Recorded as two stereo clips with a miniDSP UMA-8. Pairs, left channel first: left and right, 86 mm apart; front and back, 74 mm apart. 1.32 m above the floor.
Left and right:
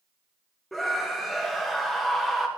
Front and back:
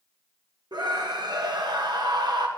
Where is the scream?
Straight behind, 1.2 m.